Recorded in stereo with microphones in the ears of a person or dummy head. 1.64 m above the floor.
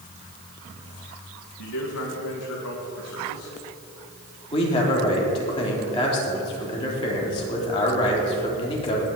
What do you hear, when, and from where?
1.6 s a man speaking: 80° left, 1.9 m
4.5 s a man speaking: 30° left (ahead or behind), 3.5 m